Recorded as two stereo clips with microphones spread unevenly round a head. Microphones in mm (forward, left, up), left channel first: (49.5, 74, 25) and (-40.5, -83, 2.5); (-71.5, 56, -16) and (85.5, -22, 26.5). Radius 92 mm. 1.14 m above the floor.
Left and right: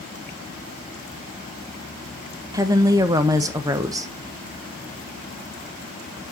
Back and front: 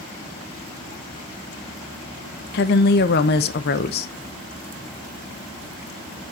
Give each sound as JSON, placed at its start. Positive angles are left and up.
{"t": 2.5, "sound": "a woman speaking", "azimuth_deg": 170, "distance_m": 0.8}